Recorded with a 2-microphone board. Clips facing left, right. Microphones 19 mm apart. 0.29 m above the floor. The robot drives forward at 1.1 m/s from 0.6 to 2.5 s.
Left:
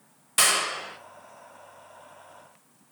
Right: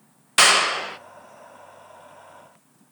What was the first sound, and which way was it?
A clap, 25° right (ahead or behind).